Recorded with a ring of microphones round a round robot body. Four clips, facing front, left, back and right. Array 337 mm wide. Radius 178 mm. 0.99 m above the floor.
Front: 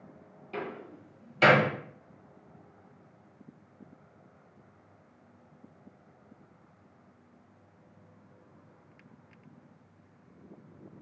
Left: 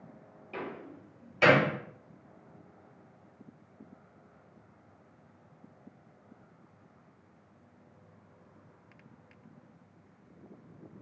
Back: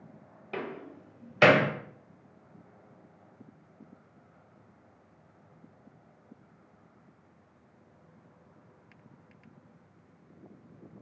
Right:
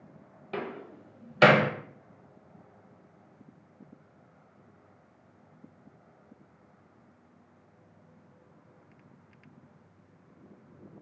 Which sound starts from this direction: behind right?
A door slam, at 0.5 s.